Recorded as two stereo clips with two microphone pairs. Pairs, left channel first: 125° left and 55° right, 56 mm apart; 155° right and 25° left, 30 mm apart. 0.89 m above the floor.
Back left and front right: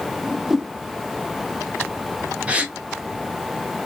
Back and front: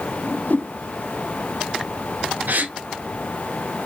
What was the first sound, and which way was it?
A whoosh, 140° right.